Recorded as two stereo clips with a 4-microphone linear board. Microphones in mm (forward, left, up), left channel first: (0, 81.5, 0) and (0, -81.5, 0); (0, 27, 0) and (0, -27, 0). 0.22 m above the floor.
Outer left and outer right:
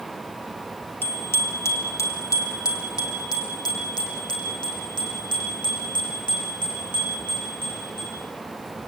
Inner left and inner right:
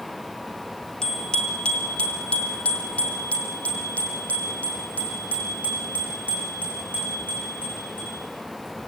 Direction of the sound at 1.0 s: 10° left (ahead or behind).